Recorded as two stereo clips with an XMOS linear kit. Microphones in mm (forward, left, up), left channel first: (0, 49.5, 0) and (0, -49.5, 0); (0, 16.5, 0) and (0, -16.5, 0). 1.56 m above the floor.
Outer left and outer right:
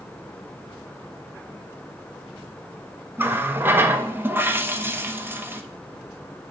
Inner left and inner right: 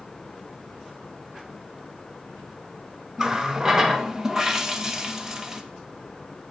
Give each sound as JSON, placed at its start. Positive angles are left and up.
{"t": 3.2, "sound": "a running tap", "side_deg": -20, "distance_m": 0.8}